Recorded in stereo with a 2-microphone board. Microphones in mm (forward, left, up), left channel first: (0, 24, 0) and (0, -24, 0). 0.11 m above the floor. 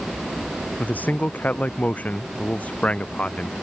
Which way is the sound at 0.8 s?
35° left (ahead or behind).